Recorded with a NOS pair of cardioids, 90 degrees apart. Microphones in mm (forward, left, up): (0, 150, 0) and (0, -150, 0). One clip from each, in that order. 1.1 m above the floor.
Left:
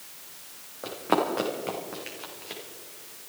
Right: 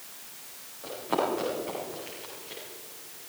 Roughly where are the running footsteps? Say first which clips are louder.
Left 3 dB; left.